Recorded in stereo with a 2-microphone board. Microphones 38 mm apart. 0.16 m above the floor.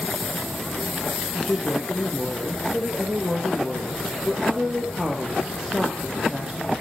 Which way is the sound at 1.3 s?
15° right (ahead or behind).